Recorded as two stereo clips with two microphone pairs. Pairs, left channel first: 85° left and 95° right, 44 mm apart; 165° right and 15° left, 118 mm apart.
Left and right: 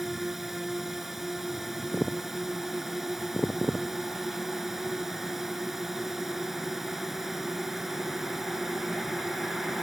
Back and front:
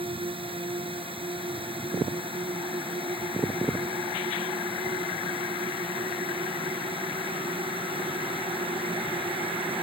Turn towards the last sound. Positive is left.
turn(degrees=-10)